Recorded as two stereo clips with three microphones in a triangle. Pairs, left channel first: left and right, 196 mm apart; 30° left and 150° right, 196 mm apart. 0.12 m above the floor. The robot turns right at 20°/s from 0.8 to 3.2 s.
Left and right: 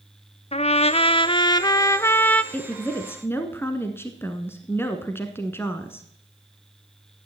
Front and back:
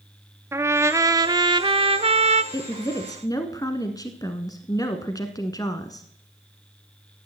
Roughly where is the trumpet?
Behind left.